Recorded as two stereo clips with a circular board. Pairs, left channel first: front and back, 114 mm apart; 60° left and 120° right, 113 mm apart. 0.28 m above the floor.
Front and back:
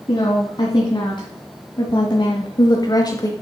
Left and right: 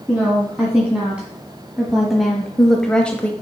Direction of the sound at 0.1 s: 45° right.